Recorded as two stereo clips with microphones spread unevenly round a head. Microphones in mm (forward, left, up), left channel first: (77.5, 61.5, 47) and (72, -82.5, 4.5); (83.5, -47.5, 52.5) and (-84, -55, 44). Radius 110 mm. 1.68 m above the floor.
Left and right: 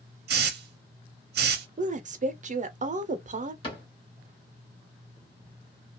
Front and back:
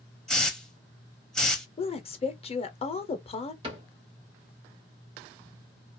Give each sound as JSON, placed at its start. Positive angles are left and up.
{"t": 0.3, "sound": "a hiss", "azimuth_deg": -85, "distance_m": 0.6}
{"t": 1.8, "sound": "a woman speaking", "azimuth_deg": -50, "distance_m": 0.7}
{"t": 3.6, "sound": "a cupboard door", "azimuth_deg": 115, "distance_m": 1.2}